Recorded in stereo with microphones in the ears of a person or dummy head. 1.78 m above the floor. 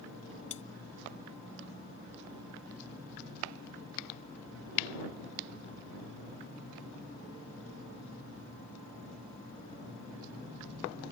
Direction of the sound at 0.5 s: 35° left (ahead or behind).